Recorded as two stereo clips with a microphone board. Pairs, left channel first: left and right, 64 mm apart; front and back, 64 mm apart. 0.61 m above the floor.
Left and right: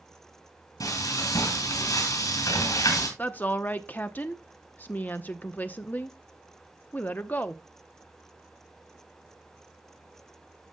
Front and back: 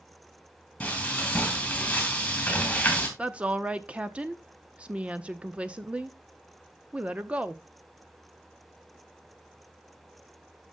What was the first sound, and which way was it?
Frying, 75° left.